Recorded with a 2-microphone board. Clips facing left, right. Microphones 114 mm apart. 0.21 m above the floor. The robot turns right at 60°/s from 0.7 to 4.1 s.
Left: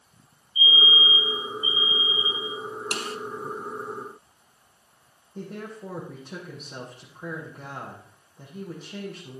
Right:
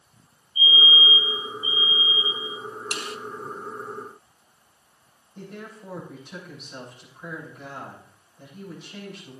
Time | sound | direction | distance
0.6 | a fire alarm | 135° right | 8.5 m
2.9 | a snare drum | 45° left (ahead or behind) | 0.6 m
5.3 | a woman speaking | 40° left (ahead or behind) | 7 m